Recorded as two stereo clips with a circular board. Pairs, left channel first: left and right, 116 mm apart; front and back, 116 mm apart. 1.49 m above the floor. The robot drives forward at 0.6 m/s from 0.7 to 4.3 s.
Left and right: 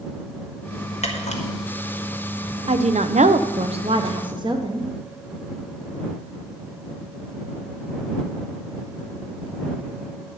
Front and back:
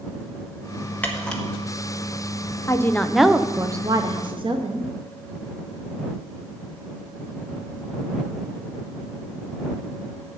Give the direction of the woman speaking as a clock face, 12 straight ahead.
2 o'clock.